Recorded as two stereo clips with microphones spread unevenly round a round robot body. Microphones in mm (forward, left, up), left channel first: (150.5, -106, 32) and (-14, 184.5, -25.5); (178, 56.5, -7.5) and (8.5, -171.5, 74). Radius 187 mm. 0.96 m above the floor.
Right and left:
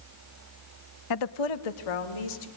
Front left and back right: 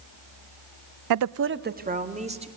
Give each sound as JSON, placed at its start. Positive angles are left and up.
{"t": 1.1, "sound": "a woman speaking", "azimuth_deg": -105, "distance_m": 0.5}